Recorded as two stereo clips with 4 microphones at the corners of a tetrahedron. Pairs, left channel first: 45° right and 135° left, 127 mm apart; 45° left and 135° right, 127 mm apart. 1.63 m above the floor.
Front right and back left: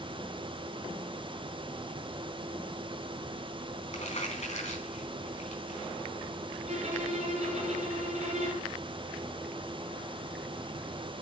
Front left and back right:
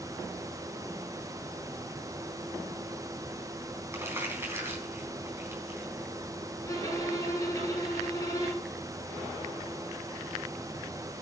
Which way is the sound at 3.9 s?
65° right.